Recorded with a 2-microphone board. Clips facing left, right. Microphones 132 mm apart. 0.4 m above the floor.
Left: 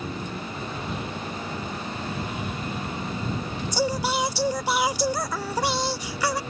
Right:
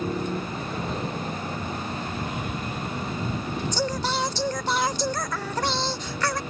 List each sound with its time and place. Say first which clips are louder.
0.0 s a motorcycle: right 5 dB; 40° right (ahead or behind); by 6.5 s 30° right (ahead or behind)
3.7 s singing: left 4 dB; 10° left (ahead or behind)